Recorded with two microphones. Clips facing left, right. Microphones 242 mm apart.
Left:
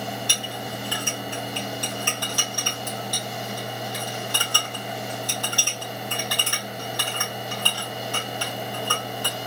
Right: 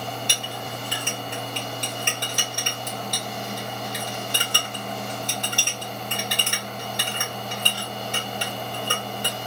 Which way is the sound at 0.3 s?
20° right (ahead or behind).